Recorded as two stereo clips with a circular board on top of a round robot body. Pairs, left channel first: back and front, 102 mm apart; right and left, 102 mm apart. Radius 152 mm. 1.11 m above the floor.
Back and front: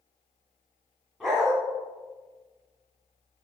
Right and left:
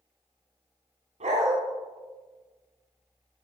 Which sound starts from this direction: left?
A dog barking, at 1.2 s.